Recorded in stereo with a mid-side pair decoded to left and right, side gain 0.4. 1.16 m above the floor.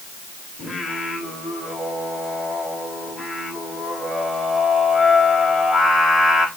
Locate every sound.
0.6 s singing: 40° left, 5 m